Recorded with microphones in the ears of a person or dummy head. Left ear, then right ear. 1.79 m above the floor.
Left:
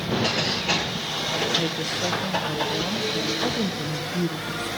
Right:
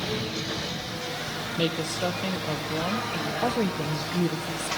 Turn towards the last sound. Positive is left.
turn(degrees=-10)  # may be behind; listen again after turning